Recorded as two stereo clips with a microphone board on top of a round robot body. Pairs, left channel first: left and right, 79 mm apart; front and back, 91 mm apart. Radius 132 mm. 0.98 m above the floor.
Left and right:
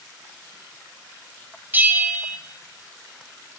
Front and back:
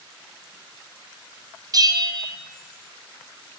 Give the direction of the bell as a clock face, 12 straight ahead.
5 o'clock.